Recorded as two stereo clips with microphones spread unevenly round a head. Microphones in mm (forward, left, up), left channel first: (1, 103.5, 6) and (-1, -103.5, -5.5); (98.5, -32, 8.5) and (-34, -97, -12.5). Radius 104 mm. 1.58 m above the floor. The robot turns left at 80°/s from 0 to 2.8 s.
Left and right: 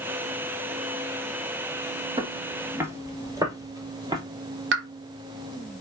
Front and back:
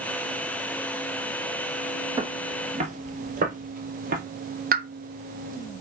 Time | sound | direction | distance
2.2 | footsteps | 125° right | 1.6 m
4.7 | a pop | 130° right | 1.2 m